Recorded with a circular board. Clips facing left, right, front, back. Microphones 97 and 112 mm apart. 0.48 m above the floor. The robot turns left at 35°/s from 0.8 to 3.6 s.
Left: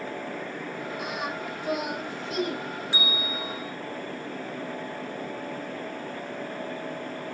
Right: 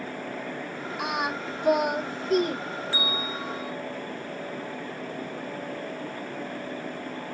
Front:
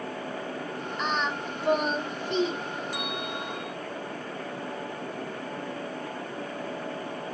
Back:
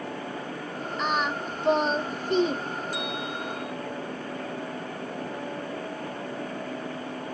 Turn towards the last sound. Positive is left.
turn(degrees=-5)